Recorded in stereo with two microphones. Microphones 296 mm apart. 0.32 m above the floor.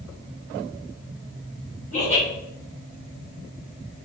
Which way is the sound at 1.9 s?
25° left (ahead or behind).